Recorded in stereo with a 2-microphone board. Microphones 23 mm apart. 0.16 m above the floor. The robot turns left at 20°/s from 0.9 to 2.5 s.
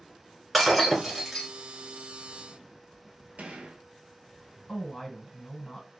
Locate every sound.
0.5 s breaking glass: 5° right (ahead or behind), 1.2 m; by 1.5 s 5° left (ahead or behind), 1.2 m
3.4 s a gunshot: 70° right (ahead or behind), 0.6 m
4.7 s a woman speaking: 30° left (ahead or behind), 1.8 m